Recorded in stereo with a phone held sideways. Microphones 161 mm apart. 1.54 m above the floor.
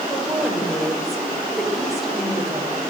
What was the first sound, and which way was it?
A woman speaking, centre (ahead or behind).